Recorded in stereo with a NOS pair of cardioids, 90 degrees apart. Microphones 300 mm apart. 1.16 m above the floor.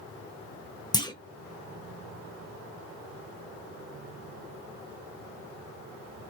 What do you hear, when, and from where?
0.9 s a clunk: 15° left, 1.1 m